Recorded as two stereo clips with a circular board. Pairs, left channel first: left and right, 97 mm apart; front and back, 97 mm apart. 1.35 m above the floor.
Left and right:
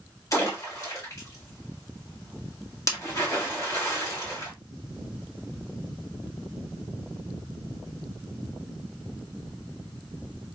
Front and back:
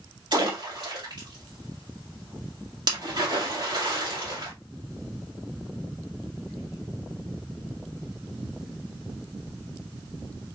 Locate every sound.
0.3 s a splash: 145° left, 1.9 m